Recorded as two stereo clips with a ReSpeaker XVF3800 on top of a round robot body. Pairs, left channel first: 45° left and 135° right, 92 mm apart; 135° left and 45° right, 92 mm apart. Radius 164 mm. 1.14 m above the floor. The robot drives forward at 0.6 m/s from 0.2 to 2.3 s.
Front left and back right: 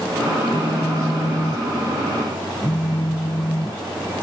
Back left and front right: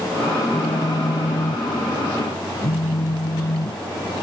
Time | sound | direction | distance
0.5 | a phone buzzing | 95° left | ?